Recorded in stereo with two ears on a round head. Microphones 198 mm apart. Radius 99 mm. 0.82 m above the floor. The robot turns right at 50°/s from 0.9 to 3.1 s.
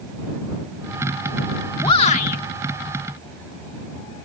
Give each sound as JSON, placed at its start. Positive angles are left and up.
{"t": 1.8, "sound": "a shout", "side_deg": 20}